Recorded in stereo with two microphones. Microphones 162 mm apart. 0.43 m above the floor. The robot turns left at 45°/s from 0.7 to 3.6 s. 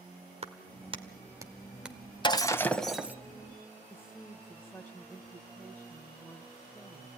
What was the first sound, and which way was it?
A clap, 40° right (ahead or behind).